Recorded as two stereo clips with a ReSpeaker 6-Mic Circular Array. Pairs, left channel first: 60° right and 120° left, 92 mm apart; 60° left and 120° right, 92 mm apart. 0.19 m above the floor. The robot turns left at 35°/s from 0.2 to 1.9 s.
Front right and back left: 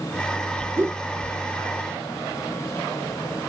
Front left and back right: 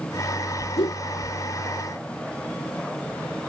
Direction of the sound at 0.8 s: 55° left.